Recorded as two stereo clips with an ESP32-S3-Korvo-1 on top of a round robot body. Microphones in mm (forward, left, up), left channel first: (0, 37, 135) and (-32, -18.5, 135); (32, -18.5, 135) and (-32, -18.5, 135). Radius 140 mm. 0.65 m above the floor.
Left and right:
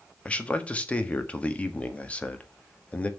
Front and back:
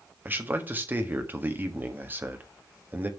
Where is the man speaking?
125° left, 1.6 m.